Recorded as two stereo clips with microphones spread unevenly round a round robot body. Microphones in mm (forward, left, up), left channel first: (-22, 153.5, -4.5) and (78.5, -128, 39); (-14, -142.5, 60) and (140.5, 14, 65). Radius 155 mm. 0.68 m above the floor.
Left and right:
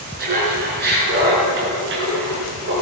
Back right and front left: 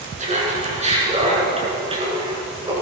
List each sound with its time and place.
0.2 s laughter: 10° right, 7 m; by 2.7 s 20° right, 8 m